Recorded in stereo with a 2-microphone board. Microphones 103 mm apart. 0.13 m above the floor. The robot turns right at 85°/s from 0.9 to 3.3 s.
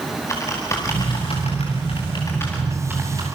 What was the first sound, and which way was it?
Typing on a keyboard, 30° left (ahead or behind).